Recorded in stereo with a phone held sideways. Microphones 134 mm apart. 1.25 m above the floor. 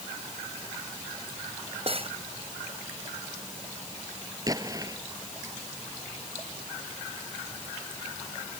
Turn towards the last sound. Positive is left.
turn(degrees=-25)  # may be behind; listen again after turning